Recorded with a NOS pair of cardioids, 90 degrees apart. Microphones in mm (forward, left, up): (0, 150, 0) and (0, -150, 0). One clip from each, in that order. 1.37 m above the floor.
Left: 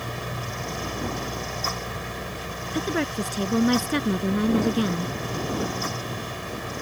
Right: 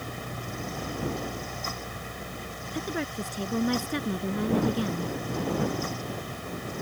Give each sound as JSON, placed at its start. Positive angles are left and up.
{"t": 0.0, "sound": "a fan", "azimuth_deg": 45}
{"t": 2.7, "sound": "a woman speaking", "azimuth_deg": 45}